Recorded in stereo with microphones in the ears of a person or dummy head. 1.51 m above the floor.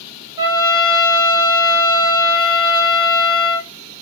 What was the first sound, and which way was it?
A trumpet, 15° right (ahead or behind).